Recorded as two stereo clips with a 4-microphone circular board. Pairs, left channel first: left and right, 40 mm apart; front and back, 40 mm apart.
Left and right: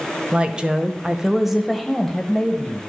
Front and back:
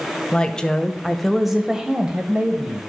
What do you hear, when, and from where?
0.3 s a woman speaking: 50° right, 1.1 m; by 2.9 s 155° left, 1.2 m